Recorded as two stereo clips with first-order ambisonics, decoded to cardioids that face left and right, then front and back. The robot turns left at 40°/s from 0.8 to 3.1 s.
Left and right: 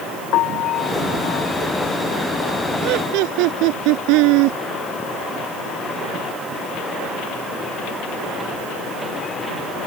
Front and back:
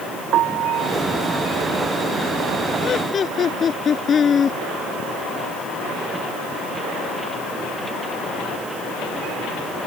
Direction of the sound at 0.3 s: 130° left.